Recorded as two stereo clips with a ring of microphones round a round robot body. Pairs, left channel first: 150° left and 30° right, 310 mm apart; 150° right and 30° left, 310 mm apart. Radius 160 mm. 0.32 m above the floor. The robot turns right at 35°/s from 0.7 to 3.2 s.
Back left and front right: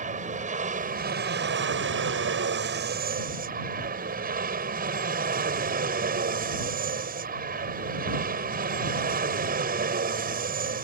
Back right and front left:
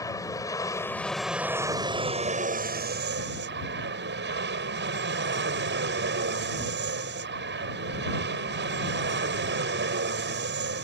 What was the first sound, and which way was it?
An aircraft, 80° right.